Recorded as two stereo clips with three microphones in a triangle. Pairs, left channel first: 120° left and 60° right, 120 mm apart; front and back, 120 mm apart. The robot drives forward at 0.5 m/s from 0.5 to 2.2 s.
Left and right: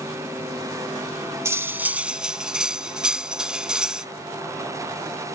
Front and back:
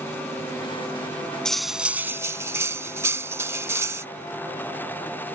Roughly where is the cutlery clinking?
Right.